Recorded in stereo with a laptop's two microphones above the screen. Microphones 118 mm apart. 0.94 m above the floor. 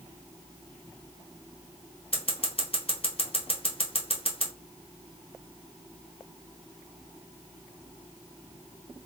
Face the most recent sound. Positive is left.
turn(degrees=50)  # may be behind; listen again after turning